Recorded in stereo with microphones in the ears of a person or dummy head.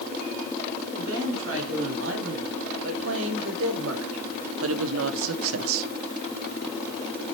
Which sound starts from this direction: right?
A woman speaking, at 1.0 s.